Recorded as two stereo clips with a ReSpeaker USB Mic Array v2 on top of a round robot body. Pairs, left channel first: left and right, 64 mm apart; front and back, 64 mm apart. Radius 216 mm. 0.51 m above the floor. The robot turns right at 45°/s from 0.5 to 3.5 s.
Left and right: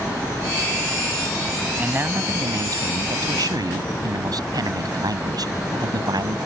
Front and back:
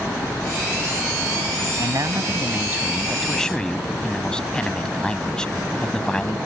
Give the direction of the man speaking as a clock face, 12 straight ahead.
5 o'clock.